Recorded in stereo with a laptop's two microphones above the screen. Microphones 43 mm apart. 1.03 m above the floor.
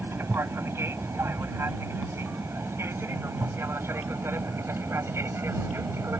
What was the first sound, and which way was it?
An aircraft, 70° right (ahead or behind).